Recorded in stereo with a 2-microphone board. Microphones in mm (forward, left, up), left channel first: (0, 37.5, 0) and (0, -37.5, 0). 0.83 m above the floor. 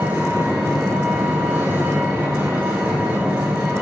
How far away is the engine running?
About 2.5 m.